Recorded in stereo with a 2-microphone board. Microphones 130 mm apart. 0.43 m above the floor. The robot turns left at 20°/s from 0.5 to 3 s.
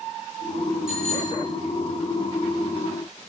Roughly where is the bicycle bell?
Centre.